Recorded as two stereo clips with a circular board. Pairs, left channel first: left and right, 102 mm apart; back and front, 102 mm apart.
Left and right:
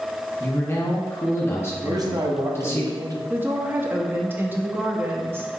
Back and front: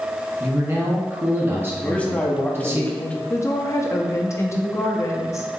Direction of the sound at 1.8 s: 110° right.